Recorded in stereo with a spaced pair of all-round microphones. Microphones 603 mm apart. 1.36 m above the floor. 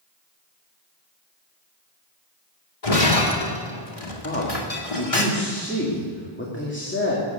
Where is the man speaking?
20° left (ahead or behind), 2.5 m.